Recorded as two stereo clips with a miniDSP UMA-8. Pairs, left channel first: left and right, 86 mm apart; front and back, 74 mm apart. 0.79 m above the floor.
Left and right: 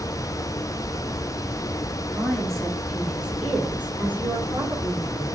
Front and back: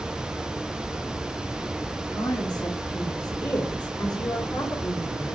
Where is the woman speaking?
10° left, 2 m; by 5.4 s 30° right, 3 m.